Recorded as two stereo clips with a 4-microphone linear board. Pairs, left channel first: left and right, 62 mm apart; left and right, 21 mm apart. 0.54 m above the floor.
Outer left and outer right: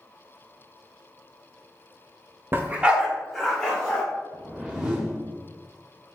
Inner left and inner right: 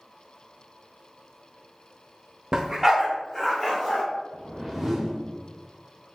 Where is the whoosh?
10° right (ahead or behind), 0.7 m.